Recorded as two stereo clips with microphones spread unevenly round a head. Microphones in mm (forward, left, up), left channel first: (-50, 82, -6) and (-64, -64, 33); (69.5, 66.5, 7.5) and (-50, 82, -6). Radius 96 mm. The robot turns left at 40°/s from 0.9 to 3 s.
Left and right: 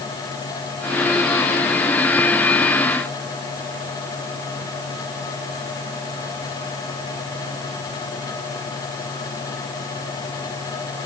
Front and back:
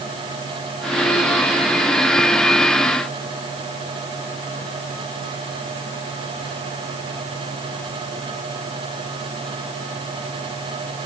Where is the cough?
I don't hear a cough.